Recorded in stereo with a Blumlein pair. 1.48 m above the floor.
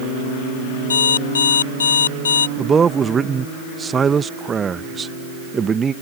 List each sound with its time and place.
0.9 s an alarm clock: 65° left
2.6 s a man speaking: 20° right